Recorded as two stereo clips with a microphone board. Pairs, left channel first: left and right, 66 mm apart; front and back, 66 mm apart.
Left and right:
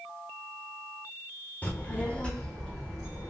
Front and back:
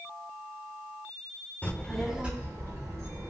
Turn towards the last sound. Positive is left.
turn(degrees=180)